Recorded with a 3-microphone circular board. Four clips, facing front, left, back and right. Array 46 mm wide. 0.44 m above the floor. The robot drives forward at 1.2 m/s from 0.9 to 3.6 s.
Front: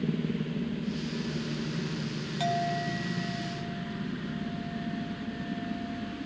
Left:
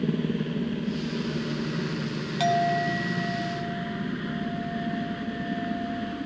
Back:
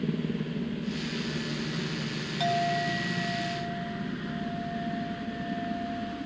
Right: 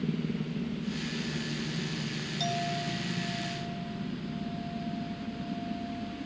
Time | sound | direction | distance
0.0 | a helicopter | 100° left | ?
2.4 | a clink | 100° left | ?